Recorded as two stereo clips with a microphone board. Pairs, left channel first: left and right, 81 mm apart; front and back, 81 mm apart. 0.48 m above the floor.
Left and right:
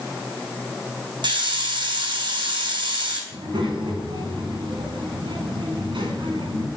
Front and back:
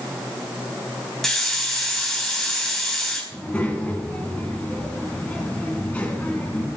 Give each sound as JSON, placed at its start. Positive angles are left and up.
{"t": 1.2, "sound": "a hiss", "azimuth_deg": -85, "distance_m": 3.5}
{"t": 3.3, "sound": "a child speaking", "azimuth_deg": -75, "distance_m": 4.0}